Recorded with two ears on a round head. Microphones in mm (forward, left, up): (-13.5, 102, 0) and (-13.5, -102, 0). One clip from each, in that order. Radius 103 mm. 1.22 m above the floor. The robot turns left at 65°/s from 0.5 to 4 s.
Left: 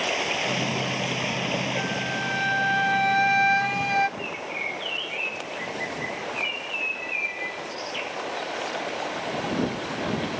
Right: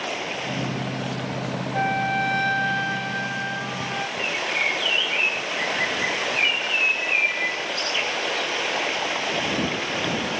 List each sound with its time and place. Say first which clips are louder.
0.0 s running water: left 3 dB; 155° left; by 10.4 s 75° right
1.7 s a flute: right 5 dB; 125° right; by 4.1 s 90° left
4.2 s a bird: right 7 dB; 35° right (ahead or behind)